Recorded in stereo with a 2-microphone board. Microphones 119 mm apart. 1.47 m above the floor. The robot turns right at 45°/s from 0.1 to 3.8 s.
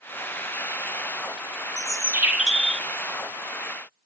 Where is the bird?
40° right, 1.5 m; by 2.9 s 10° left, 1.5 m.